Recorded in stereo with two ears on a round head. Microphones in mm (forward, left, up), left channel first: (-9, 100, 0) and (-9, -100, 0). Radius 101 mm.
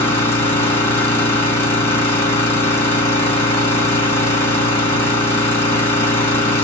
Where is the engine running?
10° left (ahead or behind), 1.3 m.